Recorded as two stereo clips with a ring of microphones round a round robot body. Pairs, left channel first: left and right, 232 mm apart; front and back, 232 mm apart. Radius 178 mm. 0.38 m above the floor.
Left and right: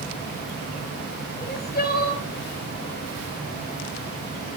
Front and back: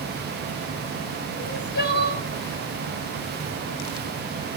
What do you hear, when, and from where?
1.4 s crying: 45° left, 3.5 m